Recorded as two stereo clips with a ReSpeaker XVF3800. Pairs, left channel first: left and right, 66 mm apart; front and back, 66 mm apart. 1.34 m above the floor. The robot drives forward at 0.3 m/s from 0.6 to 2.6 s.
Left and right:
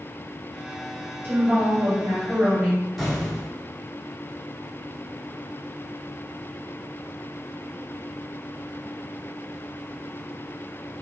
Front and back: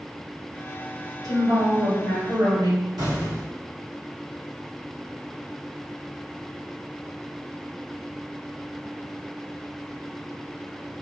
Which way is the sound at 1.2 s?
140° right.